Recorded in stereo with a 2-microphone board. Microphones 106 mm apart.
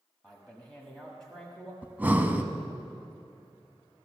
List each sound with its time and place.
0.2 s a man speaking: 5° left (ahead or behind), 1.4 m
1.8 s breathing: 15° right (ahead or behind), 0.6 m